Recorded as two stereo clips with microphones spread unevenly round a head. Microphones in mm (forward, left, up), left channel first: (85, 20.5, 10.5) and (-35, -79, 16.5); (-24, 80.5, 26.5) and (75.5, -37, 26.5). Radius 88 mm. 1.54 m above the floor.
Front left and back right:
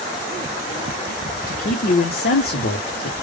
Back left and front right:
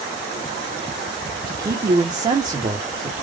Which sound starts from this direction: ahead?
A man speaking, at 1.5 s.